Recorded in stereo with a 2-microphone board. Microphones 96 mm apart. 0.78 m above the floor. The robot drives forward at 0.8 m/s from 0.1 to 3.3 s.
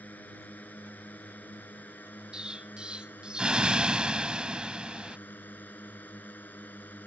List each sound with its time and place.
0.0 s a drone: 15° left (ahead or behind); by 7.1 s 20° left (ahead or behind)
2.3 s an explosion: 10° right (ahead or behind)